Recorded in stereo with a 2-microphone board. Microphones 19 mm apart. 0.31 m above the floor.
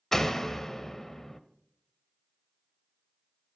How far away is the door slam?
About 0.7 m.